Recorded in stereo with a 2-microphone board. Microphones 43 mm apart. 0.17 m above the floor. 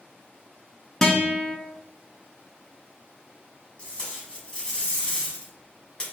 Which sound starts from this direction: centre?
A guitar, at 1.0 s.